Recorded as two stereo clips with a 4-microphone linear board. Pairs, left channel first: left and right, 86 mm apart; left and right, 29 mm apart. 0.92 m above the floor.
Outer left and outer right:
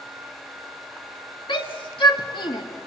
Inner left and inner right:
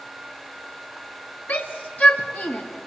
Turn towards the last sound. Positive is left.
turn(degrees=70)  # may be behind; listen again after turning